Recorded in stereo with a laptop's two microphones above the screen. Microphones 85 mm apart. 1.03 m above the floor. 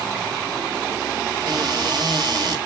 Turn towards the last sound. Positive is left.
turn(degrees=-55)  # may be behind; listen again after turning